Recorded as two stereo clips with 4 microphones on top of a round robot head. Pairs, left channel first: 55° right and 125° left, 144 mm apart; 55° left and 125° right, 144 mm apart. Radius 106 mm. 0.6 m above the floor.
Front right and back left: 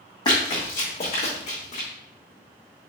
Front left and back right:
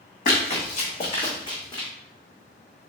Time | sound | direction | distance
0.2 | running footsteps | 10° left | 2 m